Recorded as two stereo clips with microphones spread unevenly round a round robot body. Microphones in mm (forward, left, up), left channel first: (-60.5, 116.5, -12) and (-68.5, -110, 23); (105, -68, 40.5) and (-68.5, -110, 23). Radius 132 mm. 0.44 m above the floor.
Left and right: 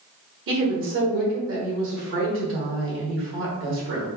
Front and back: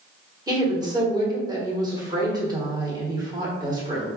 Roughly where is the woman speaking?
Right.